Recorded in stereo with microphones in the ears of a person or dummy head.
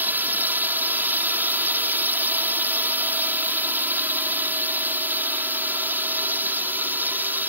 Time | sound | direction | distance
0.0 | a drone | 10° right (ahead or behind) | ?